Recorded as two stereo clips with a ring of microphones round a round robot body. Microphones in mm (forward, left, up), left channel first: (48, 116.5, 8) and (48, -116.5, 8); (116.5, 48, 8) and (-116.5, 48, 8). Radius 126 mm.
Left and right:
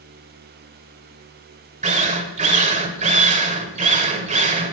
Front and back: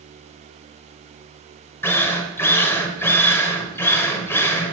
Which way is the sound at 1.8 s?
70° right.